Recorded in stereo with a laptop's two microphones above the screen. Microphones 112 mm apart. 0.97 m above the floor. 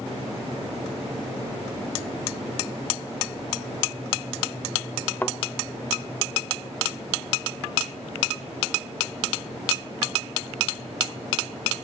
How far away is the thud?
About 1.0 m.